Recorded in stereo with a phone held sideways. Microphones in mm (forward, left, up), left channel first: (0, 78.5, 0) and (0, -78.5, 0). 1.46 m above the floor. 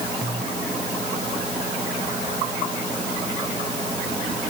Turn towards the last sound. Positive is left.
No sound to turn to.